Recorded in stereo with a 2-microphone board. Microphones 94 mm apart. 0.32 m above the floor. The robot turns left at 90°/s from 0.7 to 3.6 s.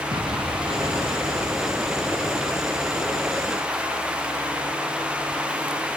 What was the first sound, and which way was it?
An explosion, 65° right.